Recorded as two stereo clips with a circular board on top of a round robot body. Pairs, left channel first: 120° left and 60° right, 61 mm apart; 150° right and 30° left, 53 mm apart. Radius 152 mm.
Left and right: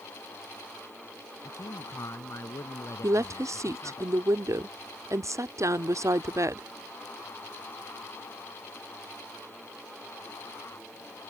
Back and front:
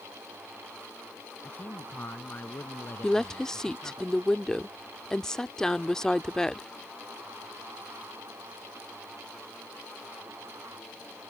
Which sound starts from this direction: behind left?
A man speaking, at 1.4 s.